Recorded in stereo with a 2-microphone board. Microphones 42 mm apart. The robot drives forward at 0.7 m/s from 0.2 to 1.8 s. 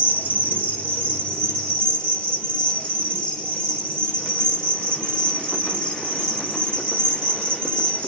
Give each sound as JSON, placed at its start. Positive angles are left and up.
{"t": 0.0, "sound": "an insect", "side_deg": 50, "distance_m": 0.9}